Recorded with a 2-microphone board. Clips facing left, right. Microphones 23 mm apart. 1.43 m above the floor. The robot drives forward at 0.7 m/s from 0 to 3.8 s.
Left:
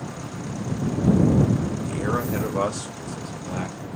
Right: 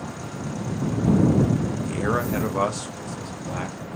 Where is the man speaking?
20° right (ahead or behind), 1.2 m; by 3.9 s 10° right (ahead or behind), 2.5 m.